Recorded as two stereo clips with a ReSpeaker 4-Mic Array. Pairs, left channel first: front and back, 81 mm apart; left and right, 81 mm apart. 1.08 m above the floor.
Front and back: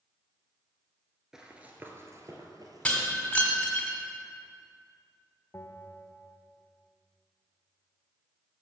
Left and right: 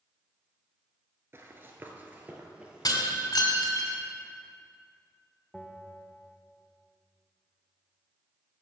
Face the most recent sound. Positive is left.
turn(degrees=0)